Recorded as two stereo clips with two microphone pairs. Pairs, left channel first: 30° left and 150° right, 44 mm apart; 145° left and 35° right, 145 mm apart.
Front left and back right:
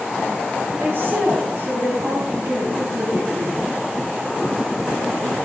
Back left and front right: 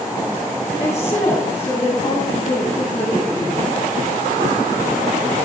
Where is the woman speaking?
175° right, 2.5 m.